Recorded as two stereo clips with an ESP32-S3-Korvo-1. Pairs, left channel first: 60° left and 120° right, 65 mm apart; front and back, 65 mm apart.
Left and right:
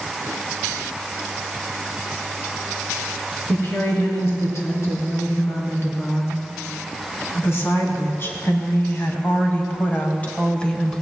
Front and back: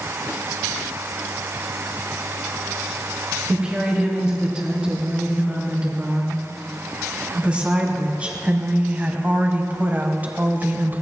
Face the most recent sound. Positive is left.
turn(degrees=135)